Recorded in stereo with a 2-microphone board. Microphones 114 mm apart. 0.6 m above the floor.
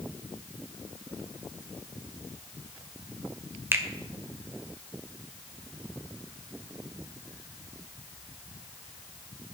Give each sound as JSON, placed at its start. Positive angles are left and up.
{"t": 3.7, "sound": "a finger snap", "side_deg": -20, "distance_m": 1.6}